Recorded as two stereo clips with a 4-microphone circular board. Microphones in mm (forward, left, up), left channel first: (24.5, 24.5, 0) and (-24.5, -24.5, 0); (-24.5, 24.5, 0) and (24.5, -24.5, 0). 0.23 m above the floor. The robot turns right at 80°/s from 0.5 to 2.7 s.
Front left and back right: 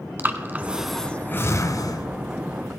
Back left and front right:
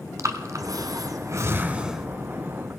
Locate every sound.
0.2 s breathing: 75° right, 1.2 m; by 2.1 s 45° left, 1.2 m